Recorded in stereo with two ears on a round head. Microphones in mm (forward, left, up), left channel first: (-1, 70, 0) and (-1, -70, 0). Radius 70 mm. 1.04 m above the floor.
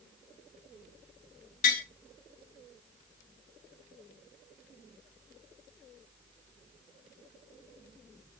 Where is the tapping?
50° left (ahead or behind), 1.4 m.